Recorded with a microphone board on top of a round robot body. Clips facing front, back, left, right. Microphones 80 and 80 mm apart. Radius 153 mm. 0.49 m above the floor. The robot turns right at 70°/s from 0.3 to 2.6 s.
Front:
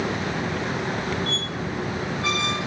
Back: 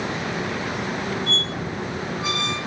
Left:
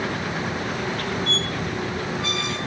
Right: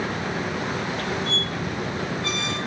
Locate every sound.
1.3 s a squeak: 40° left, 1.1 m; by 2.6 s 130° left, 1.1 m